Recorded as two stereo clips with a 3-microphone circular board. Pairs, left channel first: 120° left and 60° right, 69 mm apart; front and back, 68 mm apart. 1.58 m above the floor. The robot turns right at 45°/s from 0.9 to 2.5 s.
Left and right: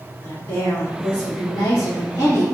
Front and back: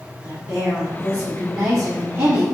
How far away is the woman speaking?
About 1.5 m.